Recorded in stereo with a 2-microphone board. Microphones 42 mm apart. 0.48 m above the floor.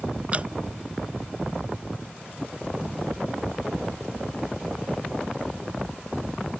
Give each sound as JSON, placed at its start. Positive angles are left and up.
{"t": 0.3, "sound": "dripping", "side_deg": -35}